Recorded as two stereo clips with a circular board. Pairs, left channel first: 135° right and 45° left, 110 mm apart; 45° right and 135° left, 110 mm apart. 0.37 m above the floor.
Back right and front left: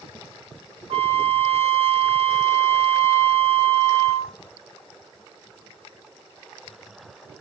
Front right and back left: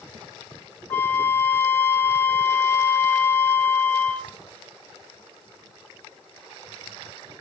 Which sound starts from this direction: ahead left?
A flute, at 0.9 s.